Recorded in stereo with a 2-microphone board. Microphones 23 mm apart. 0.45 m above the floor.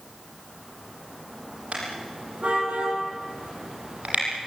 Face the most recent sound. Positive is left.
turn(degrees=-80)